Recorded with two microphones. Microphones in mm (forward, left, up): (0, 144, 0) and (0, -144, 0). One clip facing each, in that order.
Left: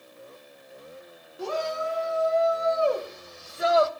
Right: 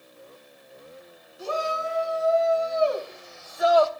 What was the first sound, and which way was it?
A shout, 70° left (ahead or behind).